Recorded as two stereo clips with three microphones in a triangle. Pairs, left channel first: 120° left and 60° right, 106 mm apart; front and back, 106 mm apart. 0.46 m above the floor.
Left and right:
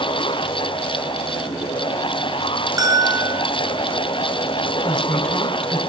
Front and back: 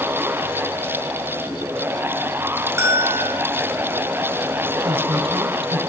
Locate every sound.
2.8 s a bell: 115° right, 6 m
4.8 s a woman speaking: 160° right, 2.5 m